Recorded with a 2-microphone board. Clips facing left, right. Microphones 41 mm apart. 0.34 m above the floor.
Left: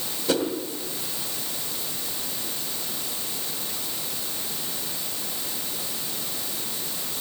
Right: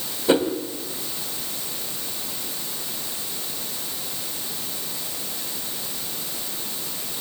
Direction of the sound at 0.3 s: 30° right (ahead or behind).